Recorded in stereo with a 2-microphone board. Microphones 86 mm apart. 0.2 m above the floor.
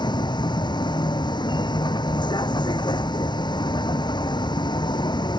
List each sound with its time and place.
0.0 s a vehicle: 60° left (ahead or behind)